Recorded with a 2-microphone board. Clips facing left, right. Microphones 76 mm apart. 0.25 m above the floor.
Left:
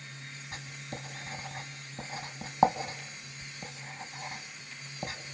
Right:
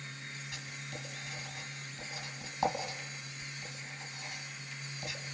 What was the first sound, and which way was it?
Writing, 40° left (ahead or behind).